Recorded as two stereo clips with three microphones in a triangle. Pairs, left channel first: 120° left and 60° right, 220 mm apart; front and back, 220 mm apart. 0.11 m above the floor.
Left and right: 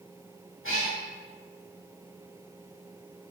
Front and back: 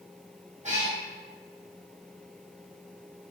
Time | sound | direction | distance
0.6 | a cat meowing | 125° left | 1.6 m